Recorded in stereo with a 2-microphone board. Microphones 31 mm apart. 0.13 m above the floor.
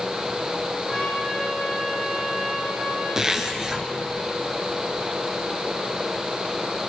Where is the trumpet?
20° left (ahead or behind), 8 m.